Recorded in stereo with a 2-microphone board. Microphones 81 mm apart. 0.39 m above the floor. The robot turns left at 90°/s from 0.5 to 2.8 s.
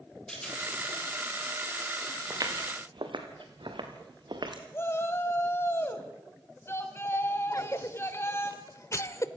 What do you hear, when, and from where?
0.3 s a rattle: 10° left (ahead or behind), 5 m; by 0.6 s centre (ahead or behind), 5 m
2.3 s footsteps: 40° right (ahead or behind), 3.5 m; by 4.6 s 60° right (ahead or behind), 3 m
4.7 s a shout: 30° left (ahead or behind), 3 m
7.5 s a cough: 35° left (ahead or behind), 1.1 m